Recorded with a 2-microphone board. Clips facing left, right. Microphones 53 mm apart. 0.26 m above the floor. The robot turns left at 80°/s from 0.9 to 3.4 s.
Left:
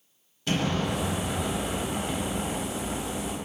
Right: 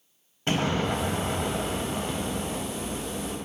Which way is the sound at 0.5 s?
105° right.